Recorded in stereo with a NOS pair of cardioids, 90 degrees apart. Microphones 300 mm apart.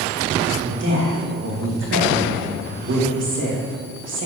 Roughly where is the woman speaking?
Ahead right.